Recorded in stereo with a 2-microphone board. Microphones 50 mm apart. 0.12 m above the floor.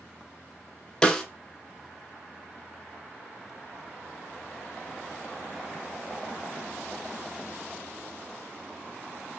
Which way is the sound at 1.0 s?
15° left (ahead or behind).